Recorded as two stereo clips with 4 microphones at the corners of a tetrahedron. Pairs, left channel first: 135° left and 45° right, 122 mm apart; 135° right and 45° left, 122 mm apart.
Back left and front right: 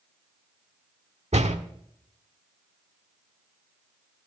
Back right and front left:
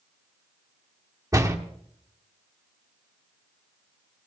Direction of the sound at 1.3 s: 20° right.